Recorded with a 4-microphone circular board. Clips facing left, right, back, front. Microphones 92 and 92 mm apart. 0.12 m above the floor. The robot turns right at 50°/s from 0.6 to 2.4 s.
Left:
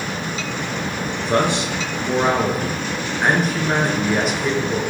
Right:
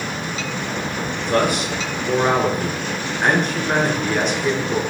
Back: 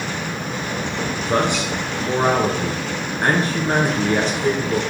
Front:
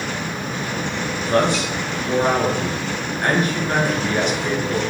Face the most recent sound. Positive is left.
turn(degrees=170)